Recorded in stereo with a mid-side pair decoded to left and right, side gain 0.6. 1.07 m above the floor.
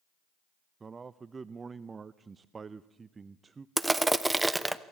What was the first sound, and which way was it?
A man speaking, 30° right.